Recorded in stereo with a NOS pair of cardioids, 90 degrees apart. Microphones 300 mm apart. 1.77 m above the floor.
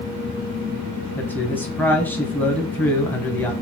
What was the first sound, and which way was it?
A man speaking, 5° left.